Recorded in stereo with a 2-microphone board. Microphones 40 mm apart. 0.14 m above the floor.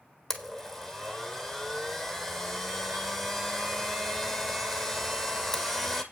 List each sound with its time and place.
0.3 s a blender: 10° left (ahead or behind), 1.2 m